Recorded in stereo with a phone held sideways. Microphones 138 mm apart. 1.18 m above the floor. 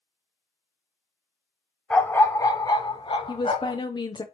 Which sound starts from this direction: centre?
A dog barking, at 1.9 s.